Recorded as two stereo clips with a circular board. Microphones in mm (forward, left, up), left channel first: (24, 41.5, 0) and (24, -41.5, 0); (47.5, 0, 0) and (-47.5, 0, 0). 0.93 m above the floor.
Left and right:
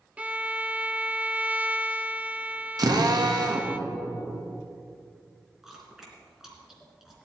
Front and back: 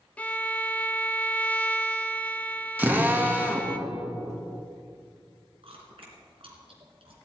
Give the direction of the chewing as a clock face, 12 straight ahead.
6 o'clock.